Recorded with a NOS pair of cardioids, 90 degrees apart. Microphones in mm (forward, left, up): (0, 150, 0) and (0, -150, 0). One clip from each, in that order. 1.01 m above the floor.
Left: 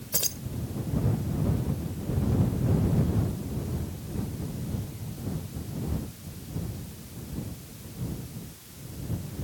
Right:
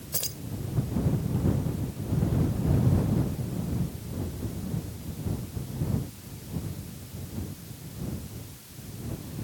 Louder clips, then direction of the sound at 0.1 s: Left 4 dB; 25° left.